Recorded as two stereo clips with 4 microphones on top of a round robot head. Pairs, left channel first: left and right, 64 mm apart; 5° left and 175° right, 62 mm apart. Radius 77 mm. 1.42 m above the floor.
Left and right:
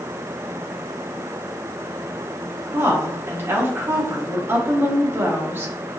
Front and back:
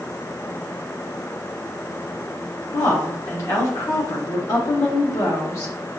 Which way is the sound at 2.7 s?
35° right.